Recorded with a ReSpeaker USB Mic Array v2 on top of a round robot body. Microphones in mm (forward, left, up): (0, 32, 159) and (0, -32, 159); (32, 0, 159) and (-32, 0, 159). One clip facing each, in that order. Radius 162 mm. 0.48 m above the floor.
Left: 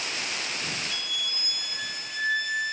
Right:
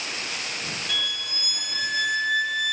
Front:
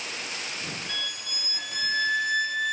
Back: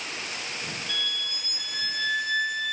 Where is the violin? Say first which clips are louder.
Right 3 dB, back 2 dB; 75° right, 1.4 m.